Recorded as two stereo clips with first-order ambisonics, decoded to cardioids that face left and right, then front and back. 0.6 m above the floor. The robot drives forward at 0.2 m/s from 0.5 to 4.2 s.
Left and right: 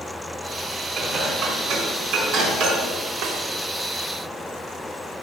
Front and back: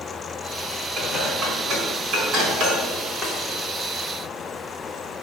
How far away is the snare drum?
About 2.5 m.